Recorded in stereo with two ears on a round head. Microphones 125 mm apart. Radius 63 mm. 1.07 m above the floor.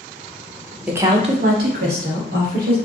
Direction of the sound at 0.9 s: 10° right (ahead or behind).